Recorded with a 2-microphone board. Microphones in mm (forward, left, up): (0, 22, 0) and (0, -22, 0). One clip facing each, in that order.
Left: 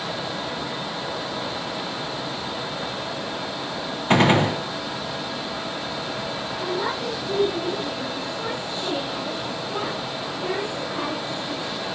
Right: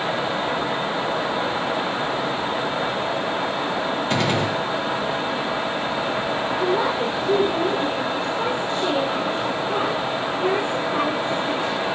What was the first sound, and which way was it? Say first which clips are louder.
A gunshot: left 7 dB; 40° left (ahead or behind).